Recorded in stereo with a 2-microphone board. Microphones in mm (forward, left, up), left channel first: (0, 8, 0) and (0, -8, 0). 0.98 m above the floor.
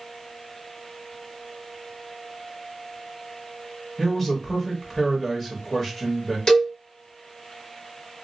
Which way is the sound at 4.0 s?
25° left (ahead or behind).